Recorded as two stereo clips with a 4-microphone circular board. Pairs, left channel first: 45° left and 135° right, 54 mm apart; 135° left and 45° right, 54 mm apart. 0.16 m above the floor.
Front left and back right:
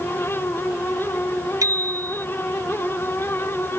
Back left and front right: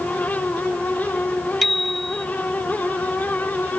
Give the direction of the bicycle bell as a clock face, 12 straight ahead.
5 o'clock.